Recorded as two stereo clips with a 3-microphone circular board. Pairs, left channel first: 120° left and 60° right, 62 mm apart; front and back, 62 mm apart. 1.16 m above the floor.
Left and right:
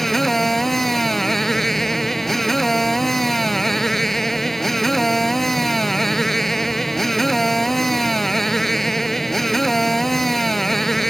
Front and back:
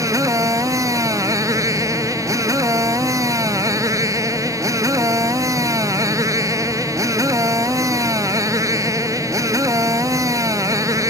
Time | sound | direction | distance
0.0 | a motorcycle | 155° right | ?